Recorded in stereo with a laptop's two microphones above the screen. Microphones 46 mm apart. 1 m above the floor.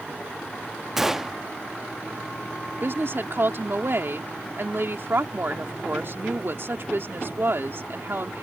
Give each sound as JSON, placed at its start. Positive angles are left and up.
{"t": 1.0, "sound": "a gunshot", "side_deg": -5}
{"t": 2.8, "sound": "a woman speaking", "side_deg": -55}